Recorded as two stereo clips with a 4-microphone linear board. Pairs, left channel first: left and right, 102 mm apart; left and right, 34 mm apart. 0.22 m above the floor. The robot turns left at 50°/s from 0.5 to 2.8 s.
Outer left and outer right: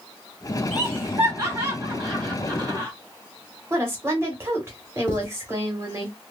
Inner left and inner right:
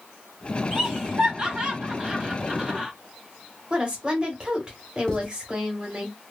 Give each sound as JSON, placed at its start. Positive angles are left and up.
{"t": 0.7, "sound": "laughter", "side_deg": -5, "distance_m": 1.5}
{"t": 3.7, "sound": "a woman speaking", "side_deg": -25, "distance_m": 1.2}
{"t": 5.1, "sound": "writing", "side_deg": 15, "distance_m": 1.1}